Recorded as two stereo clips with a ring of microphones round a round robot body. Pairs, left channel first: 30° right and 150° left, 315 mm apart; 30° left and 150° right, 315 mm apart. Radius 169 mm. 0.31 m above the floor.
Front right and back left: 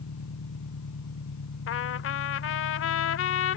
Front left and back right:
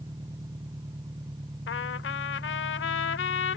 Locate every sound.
0.0 s an engine running: 70° right
1.7 s a trumpet: 5° right